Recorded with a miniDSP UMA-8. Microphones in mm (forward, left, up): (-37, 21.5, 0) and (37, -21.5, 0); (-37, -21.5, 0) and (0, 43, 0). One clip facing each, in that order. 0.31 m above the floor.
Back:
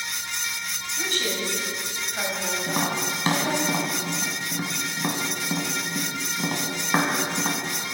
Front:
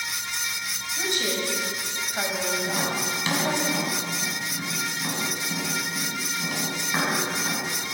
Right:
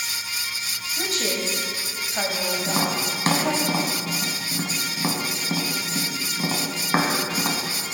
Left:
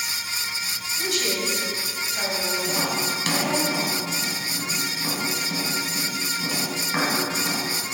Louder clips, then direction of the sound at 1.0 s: Front 1 dB, even; 95° right.